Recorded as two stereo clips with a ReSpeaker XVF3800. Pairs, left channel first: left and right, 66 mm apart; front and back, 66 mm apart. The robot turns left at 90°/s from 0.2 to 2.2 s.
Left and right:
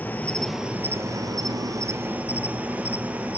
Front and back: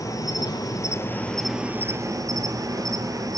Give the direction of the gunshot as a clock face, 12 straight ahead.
No gunshot in this recording.